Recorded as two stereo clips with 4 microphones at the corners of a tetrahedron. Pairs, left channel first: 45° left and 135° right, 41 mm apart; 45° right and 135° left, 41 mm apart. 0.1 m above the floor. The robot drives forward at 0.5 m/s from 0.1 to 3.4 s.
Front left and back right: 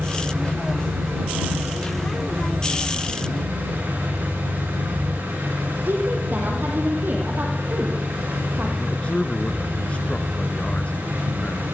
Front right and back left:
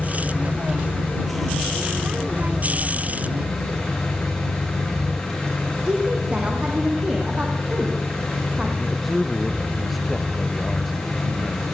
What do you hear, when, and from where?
0.0 s an engine running: 120° right, 8.5 m; by 11.7 s 130° right, 9.5 m
5.9 s a woman speaking: 165° right, 4.5 m
8.8 s a man speaking: 40° left, 1.4 m